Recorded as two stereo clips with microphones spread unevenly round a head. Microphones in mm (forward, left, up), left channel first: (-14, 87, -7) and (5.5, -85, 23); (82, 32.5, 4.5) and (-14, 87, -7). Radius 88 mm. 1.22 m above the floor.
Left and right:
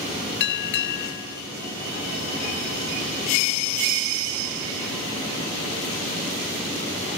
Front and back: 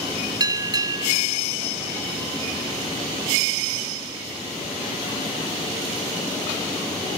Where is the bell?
100° left.